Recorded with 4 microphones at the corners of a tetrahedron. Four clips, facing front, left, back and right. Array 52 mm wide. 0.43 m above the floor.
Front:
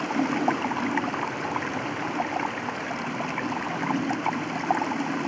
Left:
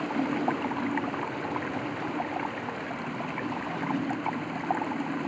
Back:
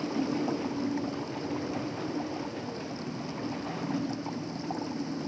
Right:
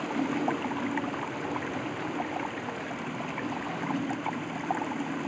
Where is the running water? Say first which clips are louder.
Left 1 dB, front 6 dB; 10° left.